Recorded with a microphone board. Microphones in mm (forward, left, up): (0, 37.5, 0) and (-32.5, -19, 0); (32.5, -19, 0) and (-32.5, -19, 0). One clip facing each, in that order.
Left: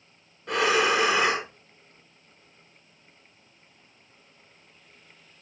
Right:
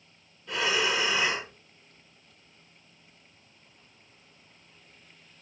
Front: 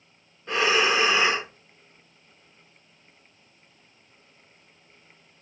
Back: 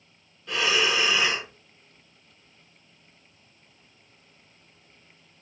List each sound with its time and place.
0.5 s breathing: 50° left, 0.5 m